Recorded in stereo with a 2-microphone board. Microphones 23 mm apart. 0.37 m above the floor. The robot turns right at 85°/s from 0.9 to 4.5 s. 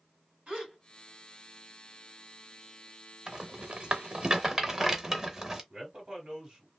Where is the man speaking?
35° right (ahead or behind), 1.2 m.